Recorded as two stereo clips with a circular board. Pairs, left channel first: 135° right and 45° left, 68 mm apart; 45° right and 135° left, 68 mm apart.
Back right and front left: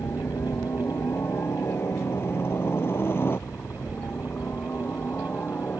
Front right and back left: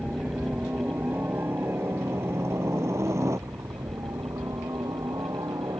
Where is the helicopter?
160° right; by 5.8 s 165° left.